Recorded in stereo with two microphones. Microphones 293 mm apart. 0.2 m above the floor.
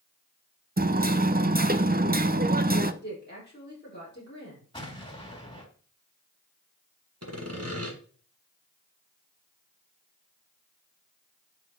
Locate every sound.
0.8 s hammering: 30° right (ahead or behind), 0.6 m
3.0 s a woman speaking: 35° left (ahead or behind), 5.5 m
4.7 s an explosion: 15° left (ahead or behind), 2 m
7.2 s sawing: 55° right (ahead or behind), 1.8 m